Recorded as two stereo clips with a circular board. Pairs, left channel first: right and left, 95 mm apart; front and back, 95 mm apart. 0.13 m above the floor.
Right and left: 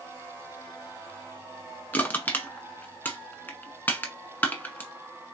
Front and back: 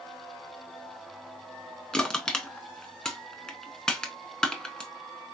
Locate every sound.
1.9 s crushing: 70° right, 0.8 m